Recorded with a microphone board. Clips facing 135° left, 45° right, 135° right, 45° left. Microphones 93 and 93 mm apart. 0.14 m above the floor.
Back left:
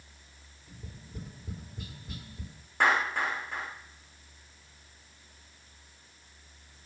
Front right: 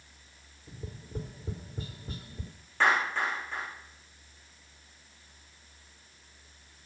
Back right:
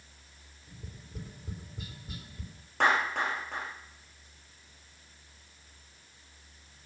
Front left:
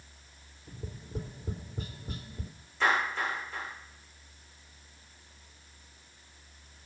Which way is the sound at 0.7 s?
5° left.